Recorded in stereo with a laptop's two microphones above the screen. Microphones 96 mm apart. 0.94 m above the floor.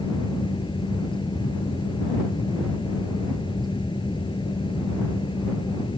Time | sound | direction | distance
0.0 | a fan | 55° left (ahead or behind) | ?